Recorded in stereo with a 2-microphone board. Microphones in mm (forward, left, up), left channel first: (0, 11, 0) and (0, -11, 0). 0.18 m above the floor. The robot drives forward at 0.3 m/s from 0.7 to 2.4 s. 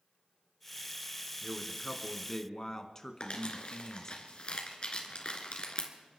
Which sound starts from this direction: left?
Crumpling, at 3.2 s.